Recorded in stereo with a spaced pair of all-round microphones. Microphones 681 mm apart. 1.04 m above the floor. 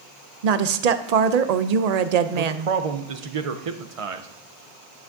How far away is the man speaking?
About 0.7 m.